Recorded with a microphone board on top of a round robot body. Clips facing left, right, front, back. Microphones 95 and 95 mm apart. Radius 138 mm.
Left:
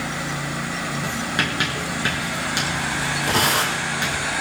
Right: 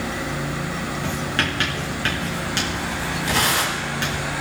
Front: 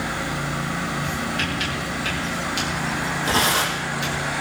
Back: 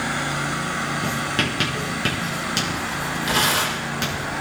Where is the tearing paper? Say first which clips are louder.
Left 1 dB, front 1 dB; 55° left, 6 m.